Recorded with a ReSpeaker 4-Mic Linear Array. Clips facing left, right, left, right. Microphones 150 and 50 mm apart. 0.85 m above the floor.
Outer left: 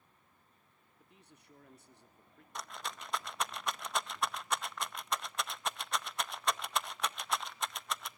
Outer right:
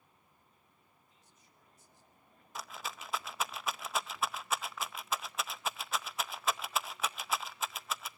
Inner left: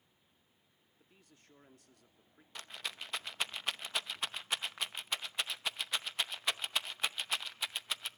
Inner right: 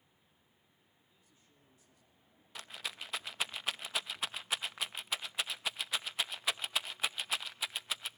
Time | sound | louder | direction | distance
1.0 | a man speaking | outer left 6 dB, inner left 8 dB | 65° left (ahead or behind) | 2.5 m
2.5 | a rattle | even, even | 5° right (ahead or behind) | 0.6 m